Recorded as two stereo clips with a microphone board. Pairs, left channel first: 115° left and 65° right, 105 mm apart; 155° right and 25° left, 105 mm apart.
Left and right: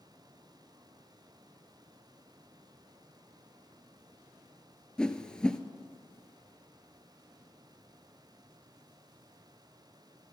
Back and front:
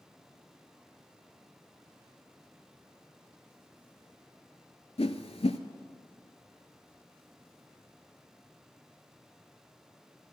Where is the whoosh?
165° right, 0.6 m.